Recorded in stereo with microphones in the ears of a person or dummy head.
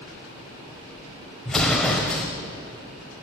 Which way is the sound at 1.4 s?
5° left (ahead or behind).